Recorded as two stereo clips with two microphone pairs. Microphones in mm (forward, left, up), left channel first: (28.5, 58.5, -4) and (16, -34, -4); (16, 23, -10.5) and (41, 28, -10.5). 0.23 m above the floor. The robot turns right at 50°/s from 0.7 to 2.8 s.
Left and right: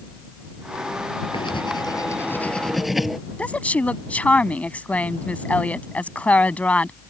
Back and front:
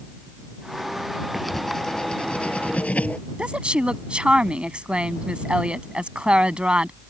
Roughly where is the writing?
Left.